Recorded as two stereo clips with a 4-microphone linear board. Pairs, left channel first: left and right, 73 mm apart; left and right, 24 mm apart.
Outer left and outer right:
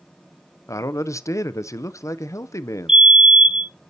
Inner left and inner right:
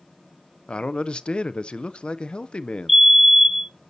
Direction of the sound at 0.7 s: 45° left (ahead or behind).